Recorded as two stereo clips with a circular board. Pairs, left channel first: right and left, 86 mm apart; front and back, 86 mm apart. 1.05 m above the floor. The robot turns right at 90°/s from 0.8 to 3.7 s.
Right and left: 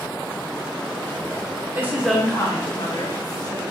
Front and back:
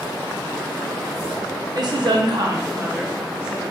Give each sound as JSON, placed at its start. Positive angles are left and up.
{"t": 1.8, "sound": "a woman speaking", "azimuth_deg": 145, "distance_m": 0.6}